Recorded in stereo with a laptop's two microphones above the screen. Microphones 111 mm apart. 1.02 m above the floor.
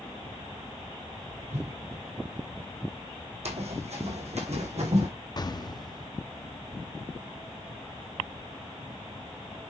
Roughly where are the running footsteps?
Right.